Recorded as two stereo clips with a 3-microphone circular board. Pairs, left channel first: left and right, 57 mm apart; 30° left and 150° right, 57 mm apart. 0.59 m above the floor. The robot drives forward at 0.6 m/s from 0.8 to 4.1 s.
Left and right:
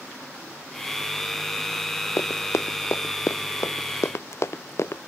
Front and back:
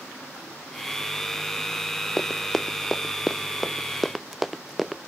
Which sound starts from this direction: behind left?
Running footsteps, at 2.2 s.